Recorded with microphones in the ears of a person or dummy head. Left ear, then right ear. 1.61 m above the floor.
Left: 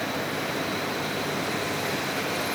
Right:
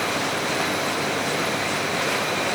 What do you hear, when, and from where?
Only background noise.